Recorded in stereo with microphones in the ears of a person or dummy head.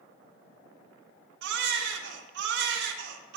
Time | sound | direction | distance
1.4 | a baby crying | 70° right (ahead or behind) | 1.0 m